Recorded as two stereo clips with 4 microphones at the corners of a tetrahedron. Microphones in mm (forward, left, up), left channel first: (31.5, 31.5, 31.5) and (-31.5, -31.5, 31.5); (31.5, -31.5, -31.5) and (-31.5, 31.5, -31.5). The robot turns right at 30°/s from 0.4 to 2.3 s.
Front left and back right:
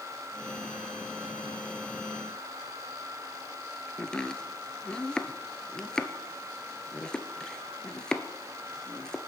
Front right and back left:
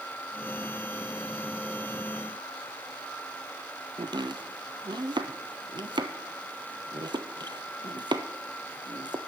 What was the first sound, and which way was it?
Chopping, 125° left.